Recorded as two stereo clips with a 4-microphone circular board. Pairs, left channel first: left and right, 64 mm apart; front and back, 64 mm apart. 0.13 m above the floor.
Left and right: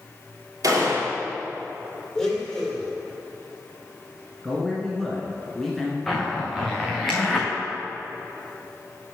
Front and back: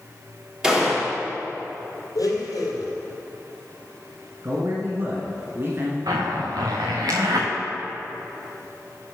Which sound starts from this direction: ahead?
A blender, at 2.1 s.